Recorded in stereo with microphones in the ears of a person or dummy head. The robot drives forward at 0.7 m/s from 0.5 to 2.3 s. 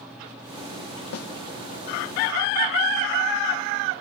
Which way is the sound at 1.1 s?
80° left.